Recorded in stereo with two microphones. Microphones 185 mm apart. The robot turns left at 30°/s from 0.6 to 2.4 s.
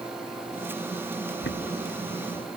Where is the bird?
85° left; by 2.5 s 50° left.